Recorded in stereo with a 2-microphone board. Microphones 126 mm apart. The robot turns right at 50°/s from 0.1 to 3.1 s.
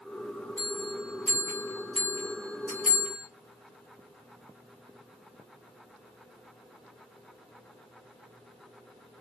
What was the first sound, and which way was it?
A bell, 20° left (ahead or behind).